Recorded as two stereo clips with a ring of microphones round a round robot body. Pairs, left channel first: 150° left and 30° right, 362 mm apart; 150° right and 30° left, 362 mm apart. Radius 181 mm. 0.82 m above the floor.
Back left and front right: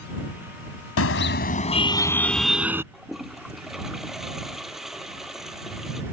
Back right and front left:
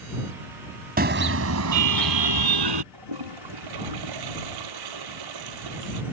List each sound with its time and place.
1.0 s a car horn: 95° left; by 2.8 s 55° left
2.9 s a toilet flushing: 60° left